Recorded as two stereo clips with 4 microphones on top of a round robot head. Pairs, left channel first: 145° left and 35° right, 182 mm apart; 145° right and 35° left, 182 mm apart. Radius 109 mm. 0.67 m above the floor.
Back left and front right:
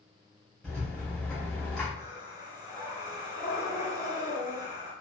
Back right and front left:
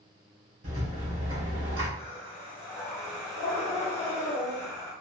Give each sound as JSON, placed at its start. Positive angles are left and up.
{"t": 0.6, "sound": "a rattle", "azimuth_deg": 55, "distance_m": 1.9}
{"t": 2.0, "sound": "breathing", "azimuth_deg": -90, "distance_m": 1.2}